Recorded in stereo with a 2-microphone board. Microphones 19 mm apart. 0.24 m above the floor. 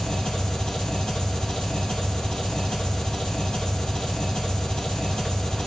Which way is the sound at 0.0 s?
45° left (ahead or behind).